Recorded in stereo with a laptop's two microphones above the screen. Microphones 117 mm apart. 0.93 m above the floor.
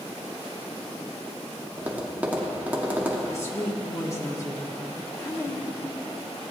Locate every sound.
1.8 s tapping: 15° right (ahead or behind), 0.9 m
3.3 s a woman speaking: 25° left (ahead or behind), 1.6 m